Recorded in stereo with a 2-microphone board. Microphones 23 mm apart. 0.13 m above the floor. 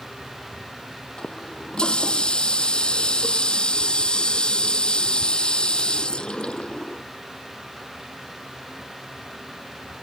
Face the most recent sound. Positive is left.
turn(degrees=45)  # may be behind; listen again after turning